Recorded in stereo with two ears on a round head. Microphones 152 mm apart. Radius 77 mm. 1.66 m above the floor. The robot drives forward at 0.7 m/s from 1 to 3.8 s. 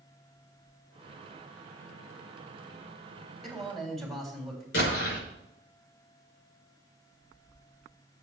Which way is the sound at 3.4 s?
Centre (ahead or behind).